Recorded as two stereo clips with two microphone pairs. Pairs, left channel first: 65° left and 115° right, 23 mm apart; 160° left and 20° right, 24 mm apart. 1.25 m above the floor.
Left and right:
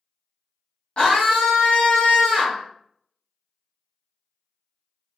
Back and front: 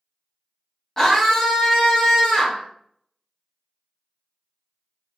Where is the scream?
90° left, 0.8 m.